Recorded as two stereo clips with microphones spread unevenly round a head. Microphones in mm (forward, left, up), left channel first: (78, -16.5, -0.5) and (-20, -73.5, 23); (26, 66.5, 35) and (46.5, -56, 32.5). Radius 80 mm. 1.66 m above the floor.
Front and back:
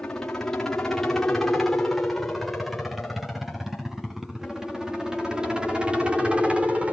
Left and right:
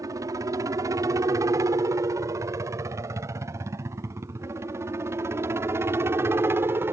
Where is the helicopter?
35° right; by 6.9 s 60° right.